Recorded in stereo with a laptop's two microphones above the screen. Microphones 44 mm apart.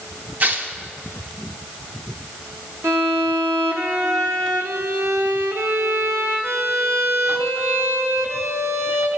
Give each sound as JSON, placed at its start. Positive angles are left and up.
{"t": 0.4, "sound": "tearing paper", "side_deg": -40, "distance_m": 0.9}
{"t": 2.8, "sound": "a violin", "side_deg": -80, "distance_m": 1.2}